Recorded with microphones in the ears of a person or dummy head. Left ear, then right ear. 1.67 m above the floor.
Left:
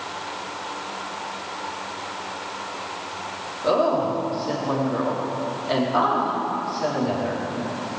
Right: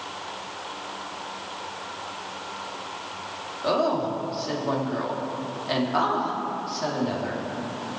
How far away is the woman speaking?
About 3.5 m.